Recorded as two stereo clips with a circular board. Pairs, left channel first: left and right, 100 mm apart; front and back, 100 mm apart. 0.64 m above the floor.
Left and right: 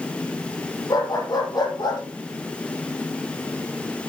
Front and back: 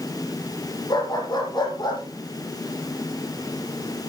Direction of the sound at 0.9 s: 40° left.